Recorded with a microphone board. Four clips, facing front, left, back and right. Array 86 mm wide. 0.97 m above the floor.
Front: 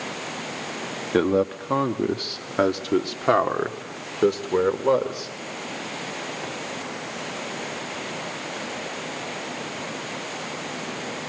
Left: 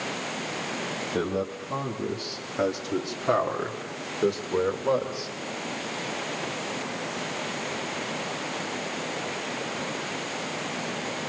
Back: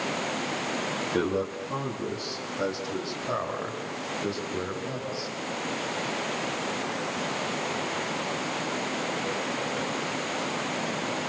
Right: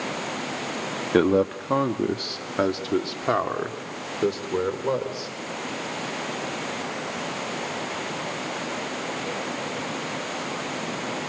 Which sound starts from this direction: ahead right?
A man speaking, at 1.1 s.